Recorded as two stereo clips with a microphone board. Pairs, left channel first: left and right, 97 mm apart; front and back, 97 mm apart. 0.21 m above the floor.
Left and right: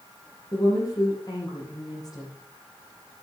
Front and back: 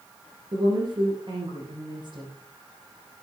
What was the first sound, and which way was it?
A woman speaking, 140° left.